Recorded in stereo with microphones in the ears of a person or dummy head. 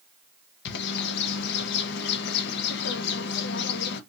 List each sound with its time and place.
0.7 s a bird: 60° left (ahead or behind), 0.7 m